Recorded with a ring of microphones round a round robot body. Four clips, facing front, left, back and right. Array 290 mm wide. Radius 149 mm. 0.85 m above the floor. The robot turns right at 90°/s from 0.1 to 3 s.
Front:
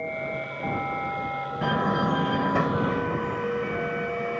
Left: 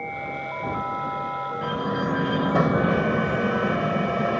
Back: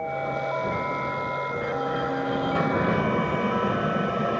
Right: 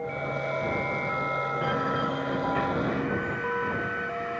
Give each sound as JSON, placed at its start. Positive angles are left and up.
{"t": 1.6, "sound": "a door slam", "azimuth_deg": -5}